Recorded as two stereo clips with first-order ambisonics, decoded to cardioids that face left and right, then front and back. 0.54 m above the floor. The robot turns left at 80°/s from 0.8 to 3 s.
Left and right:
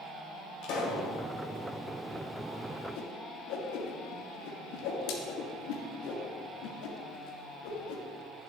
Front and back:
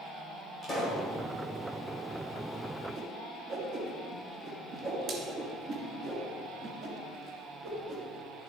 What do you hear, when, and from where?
0.6 s a pop: 70° left, 2 m; by 1.1 s 50° left, 2 m
3.0 s a whoosh: 130° left, 2 m; by 8.0 s 125° left, 2 m